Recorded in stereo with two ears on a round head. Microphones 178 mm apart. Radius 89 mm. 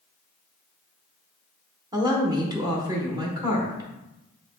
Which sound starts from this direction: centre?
A woman speaking, at 1.9 s.